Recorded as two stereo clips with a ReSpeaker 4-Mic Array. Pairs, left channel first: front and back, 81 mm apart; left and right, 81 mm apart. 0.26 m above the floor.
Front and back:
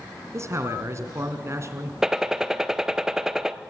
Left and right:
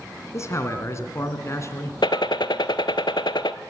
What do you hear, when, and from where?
0.3 s a man speaking: 135° left, 2.5 m
2.0 s a gunshot: 100° left, 0.7 m